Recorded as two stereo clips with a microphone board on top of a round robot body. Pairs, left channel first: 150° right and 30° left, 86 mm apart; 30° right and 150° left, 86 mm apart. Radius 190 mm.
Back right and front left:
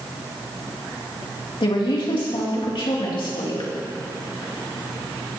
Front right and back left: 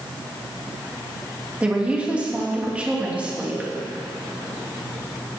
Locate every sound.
1.6 s a woman speaking: 135° right, 3 m